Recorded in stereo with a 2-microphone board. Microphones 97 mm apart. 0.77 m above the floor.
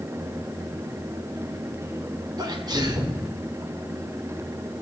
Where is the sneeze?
45° right (ahead or behind), 2.5 m.